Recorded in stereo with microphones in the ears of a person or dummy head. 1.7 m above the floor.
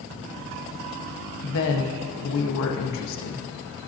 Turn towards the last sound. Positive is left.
turn(degrees=65)  # may be behind; listen again after turning